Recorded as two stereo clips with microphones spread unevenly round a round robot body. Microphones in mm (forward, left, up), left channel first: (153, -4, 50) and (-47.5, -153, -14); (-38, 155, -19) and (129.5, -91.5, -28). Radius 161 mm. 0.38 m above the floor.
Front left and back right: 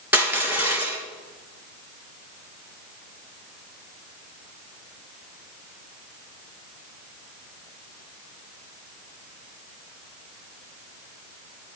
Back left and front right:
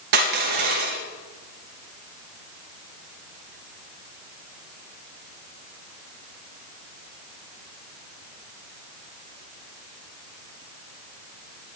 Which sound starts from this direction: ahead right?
Crushing, at 0.1 s.